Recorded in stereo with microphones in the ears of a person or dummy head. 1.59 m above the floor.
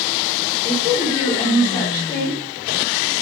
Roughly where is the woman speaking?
Centre.